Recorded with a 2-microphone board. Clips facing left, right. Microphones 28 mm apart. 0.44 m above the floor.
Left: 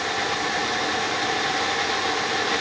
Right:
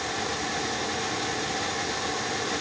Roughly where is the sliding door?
No sliding door in this recording.